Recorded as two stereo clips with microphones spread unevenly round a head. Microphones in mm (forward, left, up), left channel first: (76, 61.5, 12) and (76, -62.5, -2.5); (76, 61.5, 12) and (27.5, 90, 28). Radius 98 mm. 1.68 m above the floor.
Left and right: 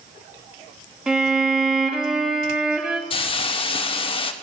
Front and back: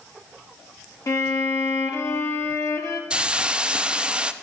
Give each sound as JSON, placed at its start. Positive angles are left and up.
{"t": 1.1, "sound": "a violin", "azimuth_deg": -5, "distance_m": 1.9}
{"t": 3.1, "sound": "a hiss", "azimuth_deg": 100, "distance_m": 0.6}